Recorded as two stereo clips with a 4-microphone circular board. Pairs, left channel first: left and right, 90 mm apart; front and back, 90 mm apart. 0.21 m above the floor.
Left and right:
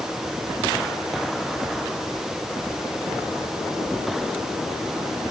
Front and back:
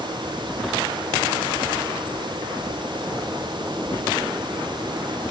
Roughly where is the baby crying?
I don't hear a baby crying.